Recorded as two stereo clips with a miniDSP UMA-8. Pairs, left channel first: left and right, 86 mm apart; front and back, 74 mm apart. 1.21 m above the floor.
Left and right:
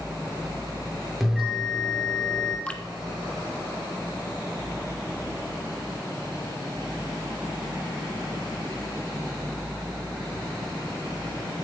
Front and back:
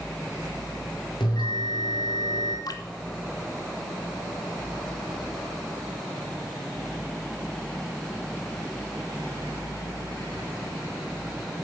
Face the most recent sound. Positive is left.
turn(degrees=15)